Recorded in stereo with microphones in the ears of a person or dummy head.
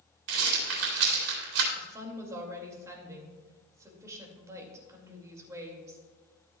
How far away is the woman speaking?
About 2.5 m.